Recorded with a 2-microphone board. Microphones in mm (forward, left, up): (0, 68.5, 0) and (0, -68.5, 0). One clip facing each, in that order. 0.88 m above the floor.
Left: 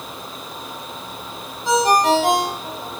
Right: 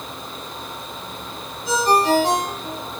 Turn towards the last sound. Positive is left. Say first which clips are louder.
# left 2 dB
turn(degrees=85)